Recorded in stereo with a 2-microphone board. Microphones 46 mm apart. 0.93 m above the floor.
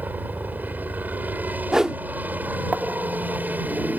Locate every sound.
0.0 s a helicopter: 40° right (ahead or behind)
1.7 s a whoosh: 15° right (ahead or behind)